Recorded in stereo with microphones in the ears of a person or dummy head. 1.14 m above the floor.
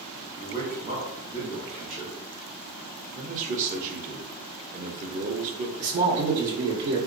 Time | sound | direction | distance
0.3 | a man speaking | 35° right (ahead or behind) | 1.8 m
3.1 | a man speaking | 45° right (ahead or behind) | 0.8 m
5.8 | a man speaking | 65° right (ahead or behind) | 1.0 m